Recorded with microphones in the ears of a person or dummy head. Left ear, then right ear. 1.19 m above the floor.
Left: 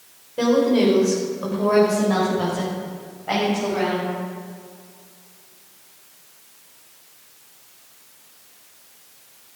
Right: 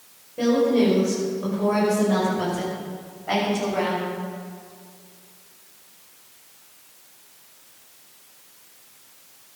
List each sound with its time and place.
0.4 s a woman speaking: 45° left (ahead or behind), 5.5 m; by 4.1 s 5° right (ahead or behind), 8 m